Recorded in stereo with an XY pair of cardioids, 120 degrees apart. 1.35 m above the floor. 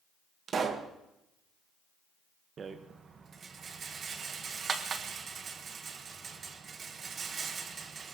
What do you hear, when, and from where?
0.5 s a pop: 40° right, 1.5 m
2.6 s a rattle: 40° right, 1.3 m